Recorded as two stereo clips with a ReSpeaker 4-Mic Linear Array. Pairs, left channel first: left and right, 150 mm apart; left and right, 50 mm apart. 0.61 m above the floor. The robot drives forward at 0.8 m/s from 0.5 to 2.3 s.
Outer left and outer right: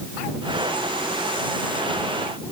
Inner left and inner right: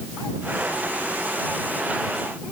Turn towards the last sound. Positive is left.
No sound to turn to.